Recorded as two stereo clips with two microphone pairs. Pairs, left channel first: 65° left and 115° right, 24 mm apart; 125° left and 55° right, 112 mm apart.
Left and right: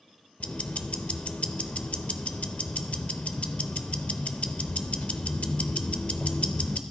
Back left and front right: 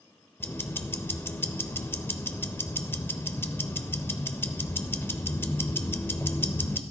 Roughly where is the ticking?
Ahead left.